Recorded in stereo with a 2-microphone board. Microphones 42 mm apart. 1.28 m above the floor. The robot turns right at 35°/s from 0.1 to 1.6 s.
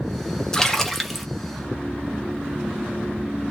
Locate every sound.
0.5 s a splash: 20° left (ahead or behind), 0.5 m; by 1.3 s centre (ahead or behind), 0.5 m